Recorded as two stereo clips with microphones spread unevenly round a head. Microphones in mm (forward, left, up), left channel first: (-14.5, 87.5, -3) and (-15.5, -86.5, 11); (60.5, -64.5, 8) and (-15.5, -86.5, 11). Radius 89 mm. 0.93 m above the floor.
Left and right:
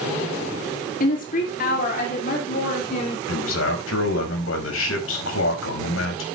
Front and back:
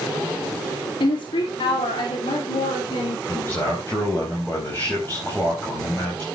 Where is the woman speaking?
50° left, 2.5 m; by 3.2 s 45° left, 4 m.